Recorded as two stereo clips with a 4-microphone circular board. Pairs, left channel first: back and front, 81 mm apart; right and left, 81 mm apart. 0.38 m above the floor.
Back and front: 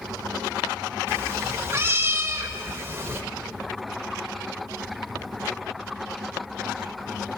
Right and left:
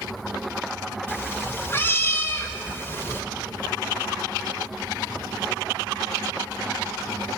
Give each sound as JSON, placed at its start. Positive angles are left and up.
{"t": 1.1, "sound": "a cat meowing", "azimuth_deg": -45, "distance_m": 0.6}